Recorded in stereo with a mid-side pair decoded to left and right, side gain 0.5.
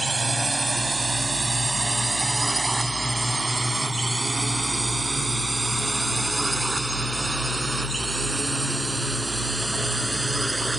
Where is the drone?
20° right; by 10.8 s 10° right.